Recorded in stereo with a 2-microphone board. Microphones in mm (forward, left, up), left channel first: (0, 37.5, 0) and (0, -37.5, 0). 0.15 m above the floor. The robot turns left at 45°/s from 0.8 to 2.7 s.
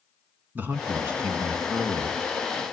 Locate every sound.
0.6 s a man speaking: 25° right (ahead or behind), 1.1 m; by 2.6 s 10° right (ahead or behind), 1.1 m